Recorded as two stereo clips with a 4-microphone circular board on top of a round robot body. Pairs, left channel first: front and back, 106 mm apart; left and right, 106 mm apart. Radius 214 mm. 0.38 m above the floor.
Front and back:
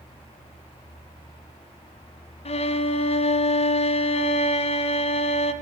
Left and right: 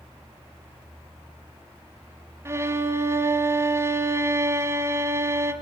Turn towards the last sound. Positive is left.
turn(degrees=-25)